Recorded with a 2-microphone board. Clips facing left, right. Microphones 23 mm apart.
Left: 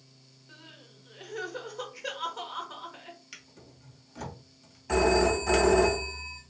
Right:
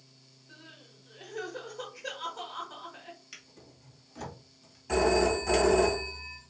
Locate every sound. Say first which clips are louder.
0.5 s crying: left 1 dB; 25° left (ahead or behind), 1.3 m
3.3 s a drawer: left 1 dB; 10° left (ahead or behind), 1.7 m
4.9 s a phone ringing: left 1 dB; 15° left (ahead or behind), 2 m